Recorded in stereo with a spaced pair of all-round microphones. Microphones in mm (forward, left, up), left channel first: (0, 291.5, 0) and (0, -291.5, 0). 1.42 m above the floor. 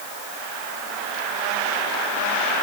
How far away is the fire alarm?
I don't hear a fire alarm.